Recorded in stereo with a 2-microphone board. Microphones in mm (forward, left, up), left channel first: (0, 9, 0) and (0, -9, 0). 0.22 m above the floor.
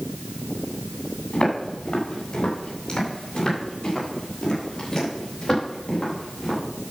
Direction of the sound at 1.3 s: 50° left (ahead or behind).